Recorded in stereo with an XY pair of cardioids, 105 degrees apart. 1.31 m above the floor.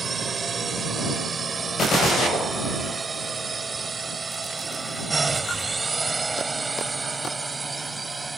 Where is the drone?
40° right; by 8.4 s 20° right.